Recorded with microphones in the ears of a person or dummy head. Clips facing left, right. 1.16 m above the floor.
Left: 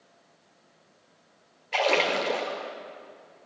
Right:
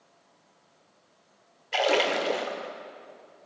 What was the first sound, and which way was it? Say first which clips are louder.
A splash: even; 10° right (ahead or behind).